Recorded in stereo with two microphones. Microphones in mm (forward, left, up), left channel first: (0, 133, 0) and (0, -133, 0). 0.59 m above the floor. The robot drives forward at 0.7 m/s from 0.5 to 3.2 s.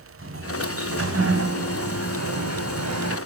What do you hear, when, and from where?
0.2 s a sliding door: 55° right (ahead or behind), 3 m; by 3.2 s 80° right, 2.5 m